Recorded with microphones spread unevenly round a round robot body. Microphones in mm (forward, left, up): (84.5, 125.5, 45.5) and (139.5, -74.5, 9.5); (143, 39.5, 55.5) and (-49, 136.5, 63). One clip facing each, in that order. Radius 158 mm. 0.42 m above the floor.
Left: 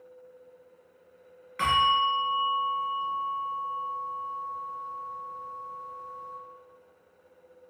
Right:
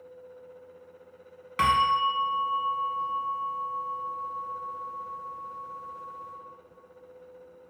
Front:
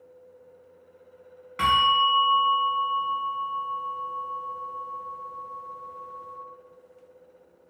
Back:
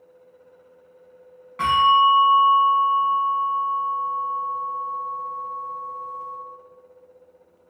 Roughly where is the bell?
Right.